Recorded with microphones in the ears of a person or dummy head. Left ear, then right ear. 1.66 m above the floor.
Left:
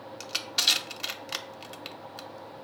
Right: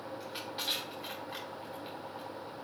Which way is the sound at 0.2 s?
60° left (ahead or behind).